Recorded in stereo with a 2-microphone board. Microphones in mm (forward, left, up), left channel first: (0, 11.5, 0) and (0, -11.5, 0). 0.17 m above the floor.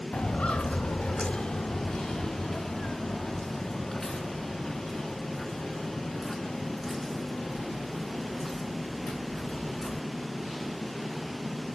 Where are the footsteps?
70° left (ahead or behind), 1.1 m; by 10.0 s 5° right (ahead or behind), 6 m.